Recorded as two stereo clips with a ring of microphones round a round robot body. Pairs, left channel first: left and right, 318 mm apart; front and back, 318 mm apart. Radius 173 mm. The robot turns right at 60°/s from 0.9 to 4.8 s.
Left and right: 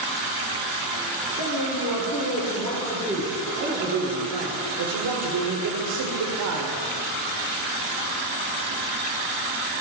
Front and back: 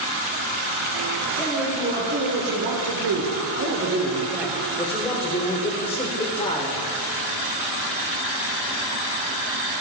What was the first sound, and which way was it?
A man speaking, 80° left.